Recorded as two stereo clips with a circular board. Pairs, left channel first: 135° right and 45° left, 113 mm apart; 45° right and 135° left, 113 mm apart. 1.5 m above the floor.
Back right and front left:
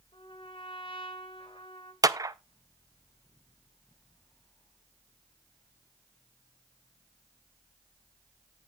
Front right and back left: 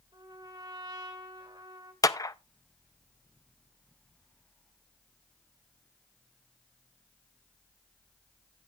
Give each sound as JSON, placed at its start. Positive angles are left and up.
{"t": 0.1, "sound": "a trumpet", "azimuth_deg": -175, "distance_m": 2.0}
{"t": 2.0, "sound": "a clap", "azimuth_deg": 0, "distance_m": 0.5}